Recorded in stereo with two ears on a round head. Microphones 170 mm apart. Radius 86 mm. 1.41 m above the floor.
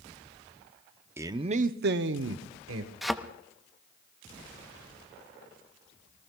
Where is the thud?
Centre (ahead or behind), 0.7 m.